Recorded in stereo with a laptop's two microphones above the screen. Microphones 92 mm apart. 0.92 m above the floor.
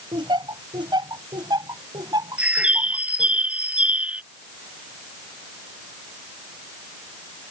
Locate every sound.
0.1 s laughter: 60° right (ahead or behind); by 3.4 s 45° right (ahead or behind)
2.4 s a bird: 15° right (ahead or behind)